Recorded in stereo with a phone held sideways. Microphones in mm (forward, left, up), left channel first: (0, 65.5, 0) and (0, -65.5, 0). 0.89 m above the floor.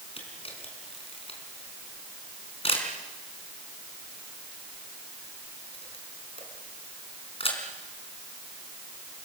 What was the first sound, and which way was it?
A camera shutter, 50° left (ahead or behind).